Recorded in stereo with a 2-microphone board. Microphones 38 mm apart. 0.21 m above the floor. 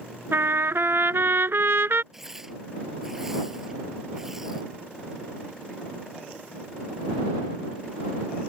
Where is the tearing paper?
10° right (ahead or behind).